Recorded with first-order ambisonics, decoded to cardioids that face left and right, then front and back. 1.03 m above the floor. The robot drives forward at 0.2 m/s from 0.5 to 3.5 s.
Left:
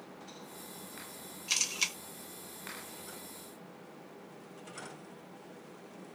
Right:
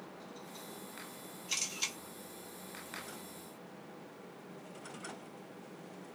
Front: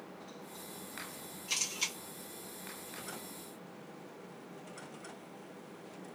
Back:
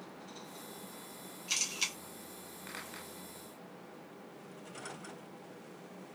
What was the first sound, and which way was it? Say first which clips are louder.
A camera shutter: left 5 dB, back 1 dB; 100° left.